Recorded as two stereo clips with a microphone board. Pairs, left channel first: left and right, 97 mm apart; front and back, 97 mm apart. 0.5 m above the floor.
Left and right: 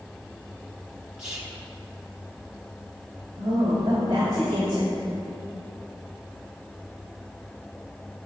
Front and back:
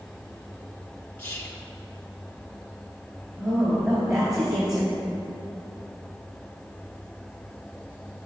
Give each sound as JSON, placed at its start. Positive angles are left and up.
{"t": 1.2, "sound": "whispering", "azimuth_deg": -25, "distance_m": 1.0}
{"t": 3.4, "sound": "a woman speaking", "azimuth_deg": -130, "distance_m": 2.0}